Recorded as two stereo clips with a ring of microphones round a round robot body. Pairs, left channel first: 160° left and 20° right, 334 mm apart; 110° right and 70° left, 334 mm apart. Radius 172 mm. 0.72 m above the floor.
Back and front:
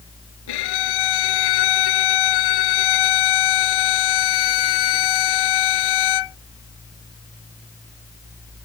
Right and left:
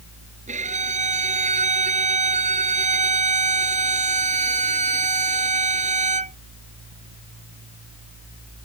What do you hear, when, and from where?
0.5 s a violin: 140° left